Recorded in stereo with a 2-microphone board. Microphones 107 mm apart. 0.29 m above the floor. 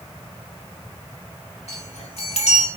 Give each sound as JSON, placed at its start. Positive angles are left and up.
{"t": 1.7, "sound": "a chime", "side_deg": 75, "distance_m": 4.0}